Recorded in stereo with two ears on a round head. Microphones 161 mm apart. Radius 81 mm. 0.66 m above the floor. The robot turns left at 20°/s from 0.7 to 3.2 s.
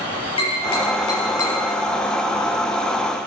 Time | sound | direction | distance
0.4 | tapping | 30° left (ahead or behind) | 5.5 m